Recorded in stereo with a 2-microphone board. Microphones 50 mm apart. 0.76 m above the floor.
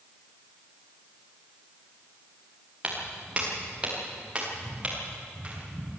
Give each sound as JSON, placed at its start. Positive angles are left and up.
{"t": 2.8, "sound": "footsteps", "side_deg": -25, "distance_m": 5.0}